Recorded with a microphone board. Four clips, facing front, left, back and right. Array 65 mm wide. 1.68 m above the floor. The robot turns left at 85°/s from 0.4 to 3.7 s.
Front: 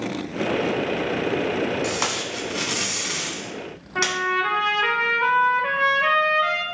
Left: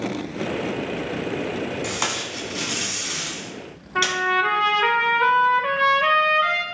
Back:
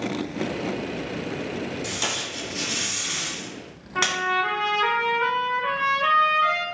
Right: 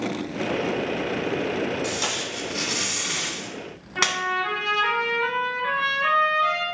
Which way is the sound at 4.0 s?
95° left.